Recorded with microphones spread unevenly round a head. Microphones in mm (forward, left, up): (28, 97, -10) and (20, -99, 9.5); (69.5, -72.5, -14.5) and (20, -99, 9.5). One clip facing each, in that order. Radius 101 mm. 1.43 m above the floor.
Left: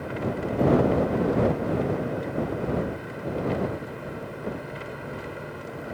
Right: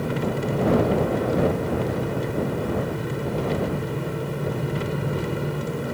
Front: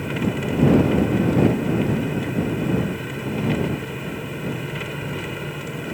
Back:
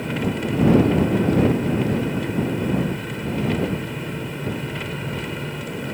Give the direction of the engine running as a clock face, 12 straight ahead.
2 o'clock.